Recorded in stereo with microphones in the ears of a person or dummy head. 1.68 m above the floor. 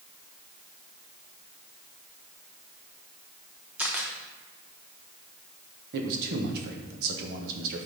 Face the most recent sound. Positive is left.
turn(degrees=-50)  # may be behind; listen again after turning